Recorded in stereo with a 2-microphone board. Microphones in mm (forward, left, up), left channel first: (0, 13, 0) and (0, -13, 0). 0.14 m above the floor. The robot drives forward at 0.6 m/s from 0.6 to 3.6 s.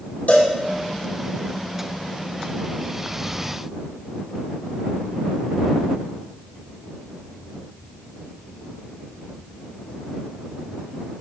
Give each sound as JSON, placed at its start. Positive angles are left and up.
{"t": 0.3, "sound": "a cowbell", "side_deg": 75, "distance_m": 1.8}